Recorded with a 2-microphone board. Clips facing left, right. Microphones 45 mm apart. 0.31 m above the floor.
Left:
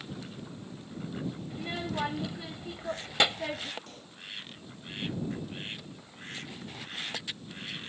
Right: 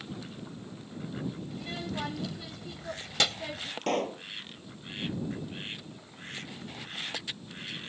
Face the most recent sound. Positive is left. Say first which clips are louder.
# right 19 dB
turn(degrees=-70)  # may be behind; listen again after turning